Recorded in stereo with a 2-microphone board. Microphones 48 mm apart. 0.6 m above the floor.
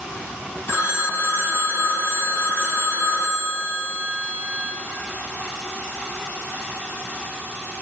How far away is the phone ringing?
About 4 m.